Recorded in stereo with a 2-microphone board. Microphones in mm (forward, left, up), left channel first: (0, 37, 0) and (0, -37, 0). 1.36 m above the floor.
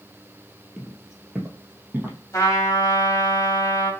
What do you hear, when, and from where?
0.8 s footsteps: centre (ahead or behind), 1.6 m; by 2.2 s 25° right (ahead or behind), 1.7 m
2.3 s a trumpet: 50° left (ahead or behind), 2.5 m